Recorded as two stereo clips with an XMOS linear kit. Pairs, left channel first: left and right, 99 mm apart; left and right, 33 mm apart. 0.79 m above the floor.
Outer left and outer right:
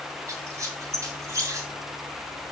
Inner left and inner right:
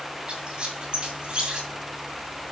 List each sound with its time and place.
0.3 s a squeak: 35° right (ahead or behind), 2 m